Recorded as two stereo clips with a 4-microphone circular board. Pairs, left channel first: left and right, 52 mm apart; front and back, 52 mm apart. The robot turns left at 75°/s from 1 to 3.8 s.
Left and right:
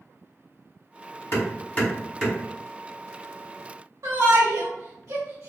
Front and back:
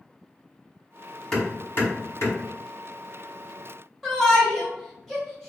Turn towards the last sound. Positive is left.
turn(degrees=-85)